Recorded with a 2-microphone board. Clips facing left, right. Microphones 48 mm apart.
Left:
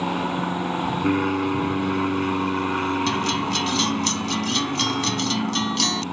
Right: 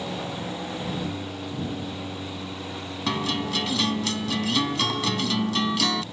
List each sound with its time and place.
0.0 s an aircraft: 60° left (ahead or behind)
3.1 s a guitar: 5° right (ahead or behind)